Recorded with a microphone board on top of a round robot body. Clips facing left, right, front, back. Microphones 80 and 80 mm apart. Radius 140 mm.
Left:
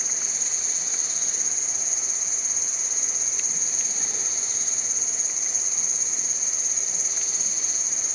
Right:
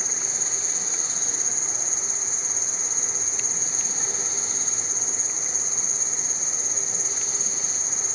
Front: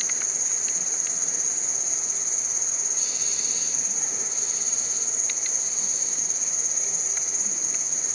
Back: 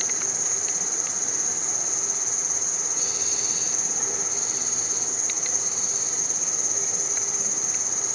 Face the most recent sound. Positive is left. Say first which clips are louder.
# right 4 dB, back 4 dB
turn(degrees=-145)